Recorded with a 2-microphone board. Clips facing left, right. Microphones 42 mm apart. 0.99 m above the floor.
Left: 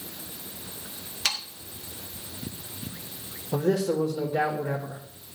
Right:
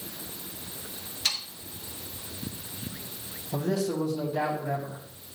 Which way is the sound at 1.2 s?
80° left.